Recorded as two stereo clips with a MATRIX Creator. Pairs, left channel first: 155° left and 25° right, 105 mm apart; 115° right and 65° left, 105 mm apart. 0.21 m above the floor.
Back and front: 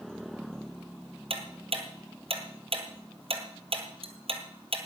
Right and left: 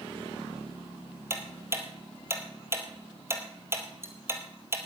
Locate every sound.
1.3 s ticking: 5° left, 2.0 m